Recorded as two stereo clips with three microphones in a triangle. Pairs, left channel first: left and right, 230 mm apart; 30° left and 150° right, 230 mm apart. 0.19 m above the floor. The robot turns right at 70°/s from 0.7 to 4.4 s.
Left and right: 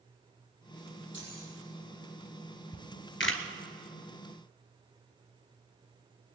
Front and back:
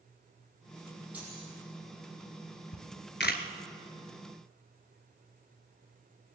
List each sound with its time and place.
1.1 s keys jangling: 125° left, 4 m; by 1.5 s 150° left, 4 m
2.7 s a camera shutter: 30° left, 1.0 m; by 3.4 s 80° left, 1.0 m